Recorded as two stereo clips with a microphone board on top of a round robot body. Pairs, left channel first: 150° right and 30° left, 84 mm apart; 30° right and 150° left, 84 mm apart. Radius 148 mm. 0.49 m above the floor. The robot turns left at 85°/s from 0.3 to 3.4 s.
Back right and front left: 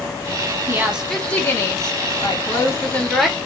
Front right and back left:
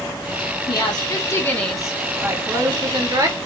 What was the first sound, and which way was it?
A woman speaking, 25° right.